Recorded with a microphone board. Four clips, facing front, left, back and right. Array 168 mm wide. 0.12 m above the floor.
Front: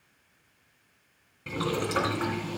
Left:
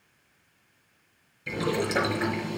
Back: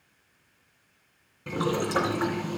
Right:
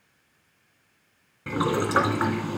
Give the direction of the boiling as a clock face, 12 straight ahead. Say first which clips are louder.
Right 3 dB, back 2 dB; 3 o'clock.